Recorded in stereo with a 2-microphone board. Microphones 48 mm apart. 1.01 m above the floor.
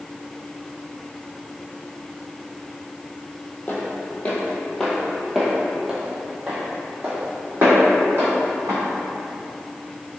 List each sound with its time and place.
3.7 s footsteps: 40° left (ahead or behind), 1.5 m; by 8.8 s 50° right (ahead or behind), 2.5 m